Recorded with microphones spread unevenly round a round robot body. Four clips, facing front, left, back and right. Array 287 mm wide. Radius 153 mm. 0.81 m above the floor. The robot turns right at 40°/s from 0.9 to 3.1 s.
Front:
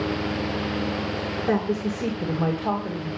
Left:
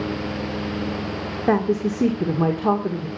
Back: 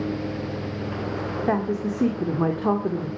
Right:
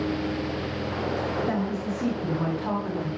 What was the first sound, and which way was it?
A woman speaking, 90° left.